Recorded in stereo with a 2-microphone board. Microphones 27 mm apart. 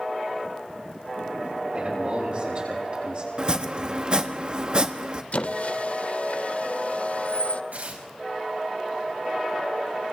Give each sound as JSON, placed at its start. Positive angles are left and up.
{"t": 1.7, "sound": "a man speaking", "side_deg": -40, "distance_m": 9.0}
{"t": 3.4, "sound": "chopping", "side_deg": -30, "distance_m": 1.0}
{"t": 5.3, "sound": "a squeak", "side_deg": 55, "distance_m": 0.6}
{"t": 7.7, "sound": "tearing paper", "side_deg": -75, "distance_m": 5.0}